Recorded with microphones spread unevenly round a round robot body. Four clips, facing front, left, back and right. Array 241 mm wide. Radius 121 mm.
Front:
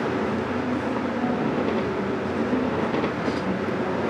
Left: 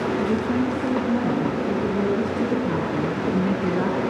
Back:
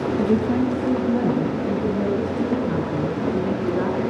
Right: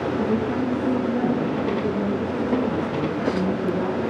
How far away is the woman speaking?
About 7.5 m.